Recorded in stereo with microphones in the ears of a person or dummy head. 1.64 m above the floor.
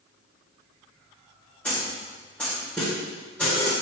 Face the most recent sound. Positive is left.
turn(degrees=5)  # may be behind; listen again after turning